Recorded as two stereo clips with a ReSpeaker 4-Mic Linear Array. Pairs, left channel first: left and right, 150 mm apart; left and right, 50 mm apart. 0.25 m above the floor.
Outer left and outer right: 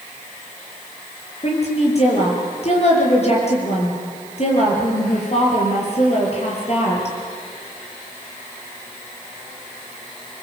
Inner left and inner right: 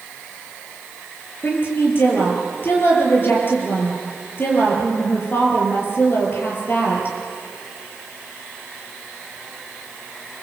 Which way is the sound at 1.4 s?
45° left (ahead or behind).